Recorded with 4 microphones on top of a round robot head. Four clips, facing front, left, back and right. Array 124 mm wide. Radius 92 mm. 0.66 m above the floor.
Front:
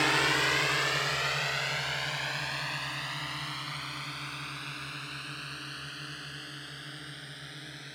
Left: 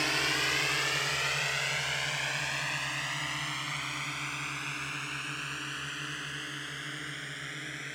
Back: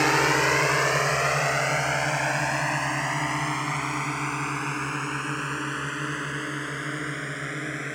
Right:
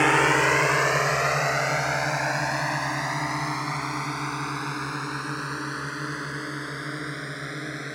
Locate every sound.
0.0 s a drone: 120° right; by 8.0 s 140° right